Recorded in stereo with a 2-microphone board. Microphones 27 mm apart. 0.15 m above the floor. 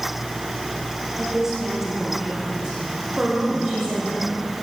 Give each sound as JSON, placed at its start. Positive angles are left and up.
{"t": 1.2, "sound": "a woman speaking", "side_deg": -15, "distance_m": 7.0}